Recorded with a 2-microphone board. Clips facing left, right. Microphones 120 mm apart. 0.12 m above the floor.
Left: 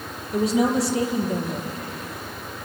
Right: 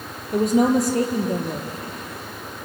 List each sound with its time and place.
0.3 s a woman speaking: 50° right (ahead or behind), 3 m